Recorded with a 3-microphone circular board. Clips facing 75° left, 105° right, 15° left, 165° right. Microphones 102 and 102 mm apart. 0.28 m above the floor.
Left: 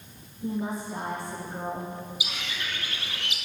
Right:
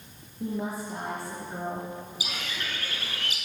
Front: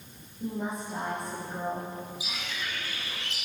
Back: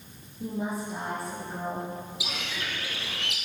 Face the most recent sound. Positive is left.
turn(degrees=-155)